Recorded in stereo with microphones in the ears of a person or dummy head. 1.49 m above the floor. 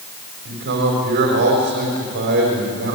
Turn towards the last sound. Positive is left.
turn(degrees=-55)  # may be behind; listen again after turning